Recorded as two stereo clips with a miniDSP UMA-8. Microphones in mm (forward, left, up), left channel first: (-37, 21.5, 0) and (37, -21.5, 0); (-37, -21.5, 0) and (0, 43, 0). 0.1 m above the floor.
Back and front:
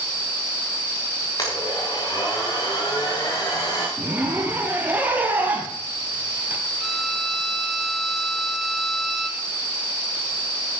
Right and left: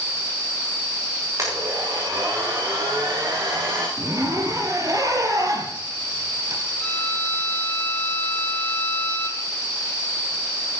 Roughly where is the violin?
Behind right.